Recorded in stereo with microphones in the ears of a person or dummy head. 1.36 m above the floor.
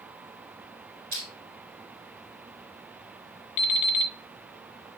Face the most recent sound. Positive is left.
turn(degrees=40)  # may be behind; listen again after turning